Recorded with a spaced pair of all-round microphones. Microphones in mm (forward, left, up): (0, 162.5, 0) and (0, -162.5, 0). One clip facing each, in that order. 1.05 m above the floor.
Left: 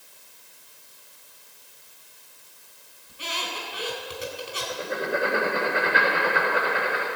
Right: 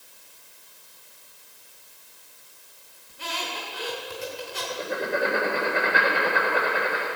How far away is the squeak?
About 2 m.